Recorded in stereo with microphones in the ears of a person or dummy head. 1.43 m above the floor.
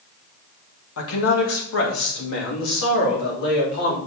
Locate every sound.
1.0 s a man speaking: 75° left (ahead or behind), 1.6 m; by 4.0 s 70° left (ahead or behind), 3.5 m